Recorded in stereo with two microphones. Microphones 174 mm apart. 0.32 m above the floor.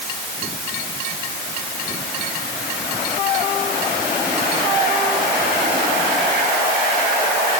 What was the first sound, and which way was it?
Only background noise.